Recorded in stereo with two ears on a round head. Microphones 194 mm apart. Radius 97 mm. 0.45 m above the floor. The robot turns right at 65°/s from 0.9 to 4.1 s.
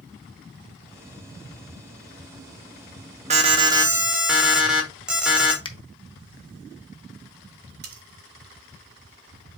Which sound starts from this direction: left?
A finger snap, at 5.7 s.